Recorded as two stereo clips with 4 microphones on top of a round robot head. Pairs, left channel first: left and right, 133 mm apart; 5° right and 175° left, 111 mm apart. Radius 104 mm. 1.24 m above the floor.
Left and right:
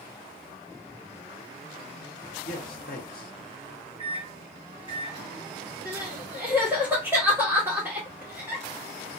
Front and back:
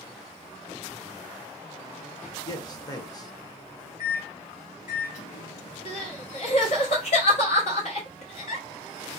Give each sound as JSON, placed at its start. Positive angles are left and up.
{"t": 2.5, "sound": "a man speaking", "azimuth_deg": 55, "distance_m": 0.7}
{"t": 4.0, "sound": "a microwave", "azimuth_deg": -25, "distance_m": 0.5}
{"t": 5.8, "sound": "crying", "azimuth_deg": -10, "distance_m": 0.7}